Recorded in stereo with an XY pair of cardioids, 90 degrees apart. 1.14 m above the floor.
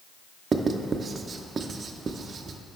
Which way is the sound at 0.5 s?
45° right.